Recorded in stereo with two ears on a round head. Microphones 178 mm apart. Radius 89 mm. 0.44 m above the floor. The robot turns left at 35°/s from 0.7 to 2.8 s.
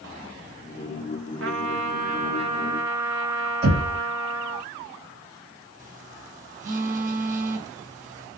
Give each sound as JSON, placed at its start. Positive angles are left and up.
{"t": 1.4, "sound": "a trumpet", "azimuth_deg": -115, "distance_m": 0.8}
{"t": 3.6, "sound": "knocking", "side_deg": -35, "distance_m": 1.9}
{"t": 5.8, "sound": "a phone buzzing", "side_deg": -40, "distance_m": 0.8}